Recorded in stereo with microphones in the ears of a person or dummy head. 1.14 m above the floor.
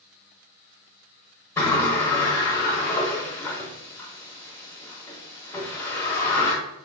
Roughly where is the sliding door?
Centre.